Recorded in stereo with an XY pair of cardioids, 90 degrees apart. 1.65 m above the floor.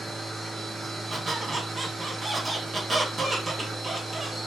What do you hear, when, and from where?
0.0 s a machine running: 25° right, 3 m
1.1 s a squeak: 35° right, 1.5 m